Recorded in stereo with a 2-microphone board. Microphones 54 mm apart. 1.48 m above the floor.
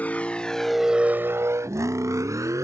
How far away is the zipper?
I don't hear a zipper.